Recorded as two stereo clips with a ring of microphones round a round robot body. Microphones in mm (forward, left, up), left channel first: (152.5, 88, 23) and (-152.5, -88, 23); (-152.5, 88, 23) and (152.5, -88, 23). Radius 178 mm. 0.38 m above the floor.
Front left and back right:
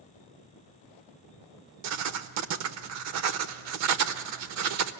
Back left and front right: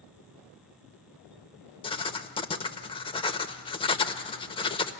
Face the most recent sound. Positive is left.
turn(degrees=-140)